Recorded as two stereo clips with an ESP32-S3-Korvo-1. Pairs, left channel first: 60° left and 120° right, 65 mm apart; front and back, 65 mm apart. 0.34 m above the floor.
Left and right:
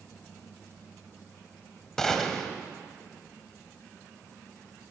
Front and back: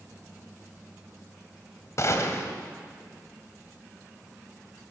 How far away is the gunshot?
About 2 m.